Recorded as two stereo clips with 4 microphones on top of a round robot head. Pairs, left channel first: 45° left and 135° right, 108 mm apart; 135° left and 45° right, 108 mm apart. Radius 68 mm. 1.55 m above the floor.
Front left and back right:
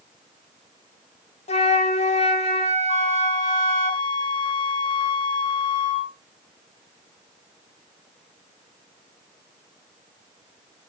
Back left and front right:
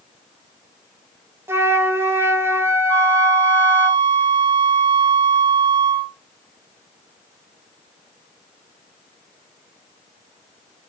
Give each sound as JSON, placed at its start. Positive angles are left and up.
{"t": 1.5, "sound": "a flute", "azimuth_deg": 25, "distance_m": 1.0}
{"t": 2.9, "sound": "a flute", "azimuth_deg": 0, "distance_m": 0.5}